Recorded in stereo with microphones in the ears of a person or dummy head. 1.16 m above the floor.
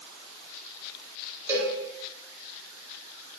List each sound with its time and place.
1.5 s a cowbell: 10° right (ahead or behind), 1.1 m